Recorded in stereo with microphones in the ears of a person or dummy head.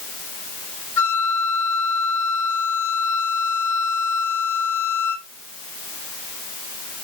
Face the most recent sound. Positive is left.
turn(degrees=15)  # may be behind; listen again after turning